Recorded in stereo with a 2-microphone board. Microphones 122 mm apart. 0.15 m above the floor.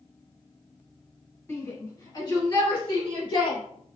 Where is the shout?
20° left (ahead or behind), 1.1 m; by 3.6 s 45° left (ahead or behind), 1.9 m.